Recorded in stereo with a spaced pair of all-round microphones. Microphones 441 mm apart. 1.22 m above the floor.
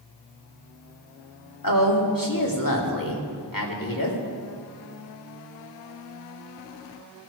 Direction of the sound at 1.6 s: 50° left (ahead or behind).